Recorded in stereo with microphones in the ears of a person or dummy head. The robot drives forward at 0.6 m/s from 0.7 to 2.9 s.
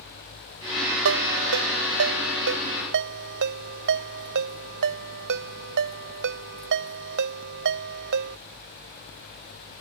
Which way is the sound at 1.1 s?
75° right (ahead or behind).